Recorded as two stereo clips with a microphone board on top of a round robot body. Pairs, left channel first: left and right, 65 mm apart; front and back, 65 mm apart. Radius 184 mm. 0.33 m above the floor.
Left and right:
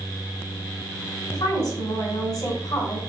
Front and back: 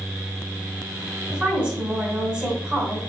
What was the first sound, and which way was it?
A woman speaking, 110° left.